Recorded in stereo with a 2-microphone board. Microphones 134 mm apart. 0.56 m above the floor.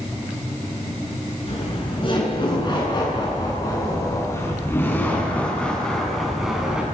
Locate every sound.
1.5 s laughter: 45° left (ahead or behind), 8 m; by 6.8 s 5° right (ahead or behind), 5.5 m